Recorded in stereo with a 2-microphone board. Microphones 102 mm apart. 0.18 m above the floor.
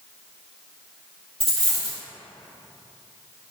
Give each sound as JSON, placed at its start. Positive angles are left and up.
{"t": 1.4, "sound": "a dropped coin", "side_deg": 75, "distance_m": 1.8}